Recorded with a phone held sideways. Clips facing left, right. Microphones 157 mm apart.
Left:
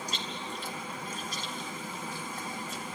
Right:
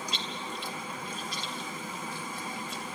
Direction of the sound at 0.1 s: 50° left (ahead or behind).